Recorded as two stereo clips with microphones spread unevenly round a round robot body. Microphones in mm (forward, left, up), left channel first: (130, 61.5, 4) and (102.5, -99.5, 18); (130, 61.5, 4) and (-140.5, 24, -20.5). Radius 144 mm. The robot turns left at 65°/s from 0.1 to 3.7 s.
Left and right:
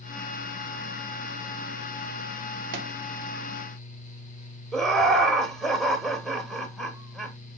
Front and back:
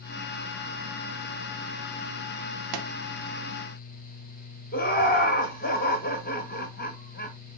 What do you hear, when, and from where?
2.7 s a pop: 130° right, 0.6 m; by 2.9 s 140° right, 0.6 m
4.7 s laughter: 5° left, 0.9 m